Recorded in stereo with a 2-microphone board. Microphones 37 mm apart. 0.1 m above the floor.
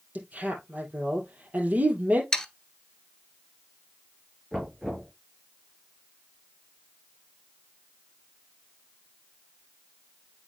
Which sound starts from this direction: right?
A woman speaking, at 0.1 s.